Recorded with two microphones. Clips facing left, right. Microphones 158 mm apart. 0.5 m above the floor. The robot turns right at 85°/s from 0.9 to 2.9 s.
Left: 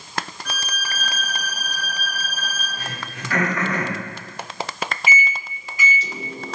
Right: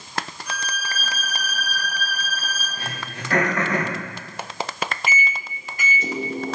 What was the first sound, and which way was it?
A violin, 85° left.